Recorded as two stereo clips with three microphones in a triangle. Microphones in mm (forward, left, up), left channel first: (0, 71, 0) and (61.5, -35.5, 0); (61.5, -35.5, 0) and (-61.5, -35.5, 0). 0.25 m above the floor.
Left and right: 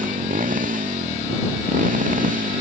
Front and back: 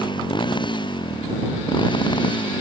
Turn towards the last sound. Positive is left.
turn(degrees=-55)